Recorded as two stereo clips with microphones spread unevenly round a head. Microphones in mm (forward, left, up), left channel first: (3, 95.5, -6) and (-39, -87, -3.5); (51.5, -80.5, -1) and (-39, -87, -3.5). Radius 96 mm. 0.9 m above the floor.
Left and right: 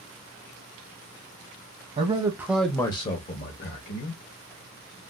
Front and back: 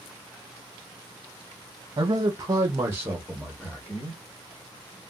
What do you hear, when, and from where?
2.0 s a man speaking: 155° right, 0.9 m; by 4.2 s 80° left, 1.3 m